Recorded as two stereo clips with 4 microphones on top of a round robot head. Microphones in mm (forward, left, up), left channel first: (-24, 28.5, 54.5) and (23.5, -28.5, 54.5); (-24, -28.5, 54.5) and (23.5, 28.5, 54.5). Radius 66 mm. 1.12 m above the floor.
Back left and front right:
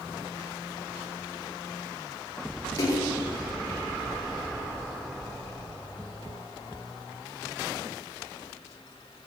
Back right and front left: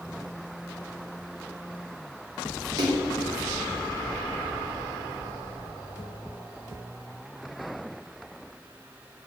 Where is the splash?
85° left, 3 m.